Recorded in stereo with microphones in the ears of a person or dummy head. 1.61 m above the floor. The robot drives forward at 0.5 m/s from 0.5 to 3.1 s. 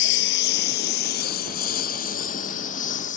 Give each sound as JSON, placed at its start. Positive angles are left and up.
{"t": 0.0, "sound": "a lawn mower", "side_deg": 65}